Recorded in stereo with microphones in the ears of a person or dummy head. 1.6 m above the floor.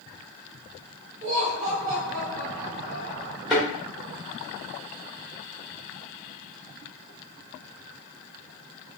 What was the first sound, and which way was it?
Laughter, 45° right (ahead or behind).